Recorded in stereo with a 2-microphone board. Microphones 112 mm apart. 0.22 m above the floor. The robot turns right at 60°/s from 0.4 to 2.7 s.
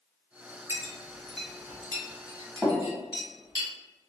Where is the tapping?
5° right (ahead or behind), 1.1 m.